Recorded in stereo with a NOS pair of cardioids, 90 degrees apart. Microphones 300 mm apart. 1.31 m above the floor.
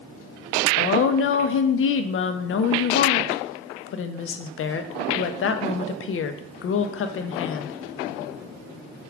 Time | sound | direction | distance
0.8 | a woman speaking | 45° left | 0.5 m